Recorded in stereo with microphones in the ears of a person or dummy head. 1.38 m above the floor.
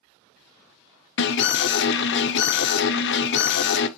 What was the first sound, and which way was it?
An alarm, 60° left (ahead or behind).